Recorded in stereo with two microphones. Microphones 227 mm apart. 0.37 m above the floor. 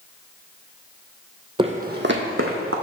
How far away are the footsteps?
About 0.6 m.